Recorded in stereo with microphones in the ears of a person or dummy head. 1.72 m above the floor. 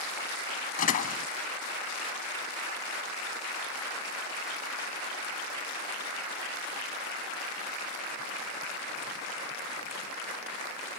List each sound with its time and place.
0.8 s a door slam: 50° left (ahead or behind)